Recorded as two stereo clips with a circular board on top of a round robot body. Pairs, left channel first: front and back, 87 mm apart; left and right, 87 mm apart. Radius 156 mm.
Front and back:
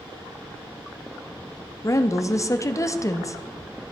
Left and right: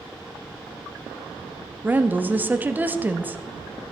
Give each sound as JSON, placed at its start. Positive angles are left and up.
{"t": 1.8, "sound": "a woman speaking", "azimuth_deg": -30, "distance_m": 1.0}